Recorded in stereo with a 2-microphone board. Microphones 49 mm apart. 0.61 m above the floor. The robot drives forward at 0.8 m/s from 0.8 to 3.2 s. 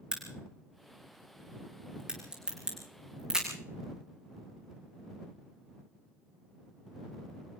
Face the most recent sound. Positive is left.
turn(degrees=-15)  # may be behind; listen again after turning